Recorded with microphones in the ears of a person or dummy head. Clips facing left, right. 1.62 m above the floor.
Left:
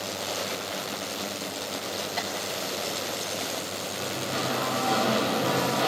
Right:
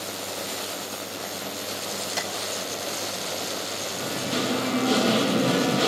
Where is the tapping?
35° right (ahead or behind), 4 m.